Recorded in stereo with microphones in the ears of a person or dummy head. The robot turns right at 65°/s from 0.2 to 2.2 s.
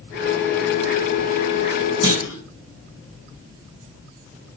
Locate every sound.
2.0 s a clunk: 25° right (ahead or behind), 4 m; by 2.4 s 15° right (ahead or behind), 4 m